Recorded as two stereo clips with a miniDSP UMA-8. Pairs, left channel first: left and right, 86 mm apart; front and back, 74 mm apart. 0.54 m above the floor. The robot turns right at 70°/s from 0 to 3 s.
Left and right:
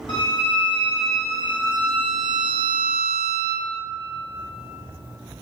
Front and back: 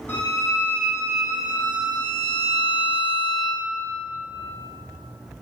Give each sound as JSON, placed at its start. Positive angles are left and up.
{"t": 0.1, "sound": "a violin", "azimuth_deg": 65, "distance_m": 1.4}